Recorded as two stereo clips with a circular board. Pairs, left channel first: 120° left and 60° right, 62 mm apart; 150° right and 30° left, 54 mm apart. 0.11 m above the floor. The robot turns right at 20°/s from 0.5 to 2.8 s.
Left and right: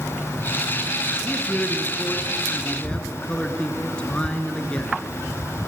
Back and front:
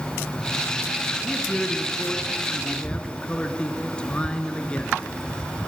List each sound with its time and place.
1.2 s a man speaking: 140° left, 1.8 m; by 5.0 s 175° left, 1.8 m